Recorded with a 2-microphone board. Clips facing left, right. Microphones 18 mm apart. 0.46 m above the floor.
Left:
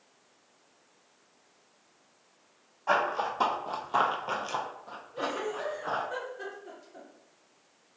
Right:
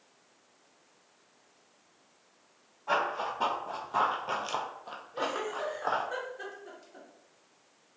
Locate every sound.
2.9 s running footsteps: 60° left (ahead or behind), 1.2 m; by 6.0 s 70° right (ahead or behind), 1.3 m
5.1 s a giggle: 20° right (ahead or behind), 0.7 m